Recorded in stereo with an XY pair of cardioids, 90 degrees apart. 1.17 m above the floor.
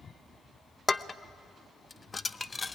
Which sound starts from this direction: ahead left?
Dishes clattering, at 0.9 s.